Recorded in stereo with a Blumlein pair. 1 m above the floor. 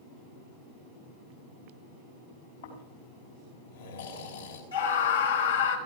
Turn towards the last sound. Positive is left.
turn(degrees=70)